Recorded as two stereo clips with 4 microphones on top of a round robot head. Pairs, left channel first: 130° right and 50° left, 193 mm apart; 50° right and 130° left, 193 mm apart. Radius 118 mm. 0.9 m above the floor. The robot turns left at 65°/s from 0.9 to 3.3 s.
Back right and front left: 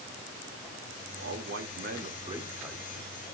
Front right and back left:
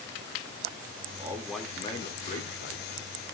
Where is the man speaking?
60° left, 2 m; by 3.3 s 75° right, 2 m.